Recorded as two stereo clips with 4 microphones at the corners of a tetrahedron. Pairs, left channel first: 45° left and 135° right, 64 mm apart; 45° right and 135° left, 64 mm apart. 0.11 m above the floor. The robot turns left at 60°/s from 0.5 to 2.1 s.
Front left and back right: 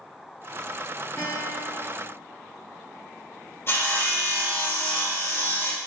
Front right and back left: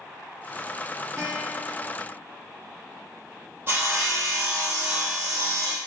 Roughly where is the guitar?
Left.